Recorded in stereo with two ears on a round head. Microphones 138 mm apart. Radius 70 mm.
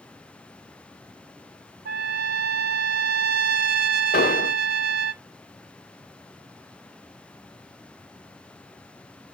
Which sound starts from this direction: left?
An explosion, at 4.1 s.